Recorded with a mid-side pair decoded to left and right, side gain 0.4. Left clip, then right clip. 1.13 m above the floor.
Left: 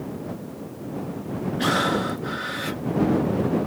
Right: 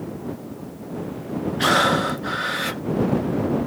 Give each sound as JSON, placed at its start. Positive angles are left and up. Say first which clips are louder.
{"t": 1.6, "sound": "breathing", "louder": "right 5 dB", "azimuth_deg": -40}